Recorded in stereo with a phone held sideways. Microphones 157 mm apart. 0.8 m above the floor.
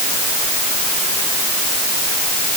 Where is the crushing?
No crushing in this recording.